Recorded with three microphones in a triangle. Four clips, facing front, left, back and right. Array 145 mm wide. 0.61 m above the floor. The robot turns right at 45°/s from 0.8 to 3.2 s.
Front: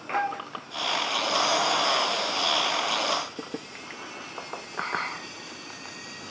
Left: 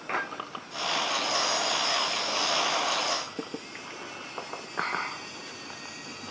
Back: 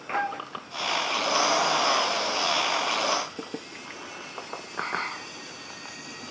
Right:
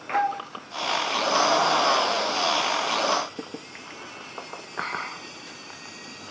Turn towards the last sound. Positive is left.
turn(degrees=20)